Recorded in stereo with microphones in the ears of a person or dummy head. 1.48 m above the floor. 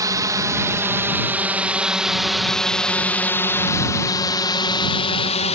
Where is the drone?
15° right (ahead or behind); by 5.5 s 40° left (ahead or behind).